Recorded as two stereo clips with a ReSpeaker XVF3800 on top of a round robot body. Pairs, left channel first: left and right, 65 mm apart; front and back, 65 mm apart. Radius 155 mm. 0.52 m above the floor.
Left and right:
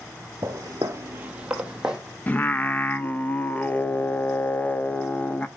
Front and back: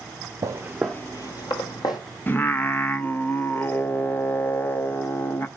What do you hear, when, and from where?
0.4 s footsteps: 145° right, 0.7 m; by 2.0 s 10° right, 1.5 m
2.3 s singing: 40° left, 1.0 m